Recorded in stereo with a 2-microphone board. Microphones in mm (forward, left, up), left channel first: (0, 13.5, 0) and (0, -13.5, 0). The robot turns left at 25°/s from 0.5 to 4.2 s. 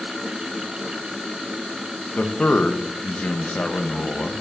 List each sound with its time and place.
2.2 s a man speaking: 120° left, 0.6 m; by 4.4 s 70° left, 0.6 m